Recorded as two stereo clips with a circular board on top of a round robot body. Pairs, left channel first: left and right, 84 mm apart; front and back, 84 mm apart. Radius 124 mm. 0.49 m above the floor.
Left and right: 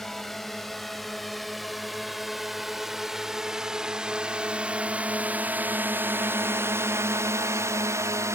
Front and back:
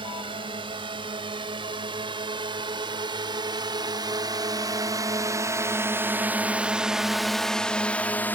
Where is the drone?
175° left; by 8.3 s 55° right.